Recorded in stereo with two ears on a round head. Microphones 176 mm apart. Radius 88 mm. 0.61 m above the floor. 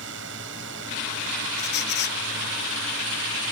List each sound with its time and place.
0.0 s a drone: 65° right (ahead or behind)
1.6 s a squeak: 55° left (ahead or behind)